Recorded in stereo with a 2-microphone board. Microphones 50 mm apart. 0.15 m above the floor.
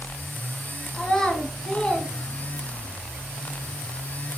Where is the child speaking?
5° left (ahead or behind), 1.2 m.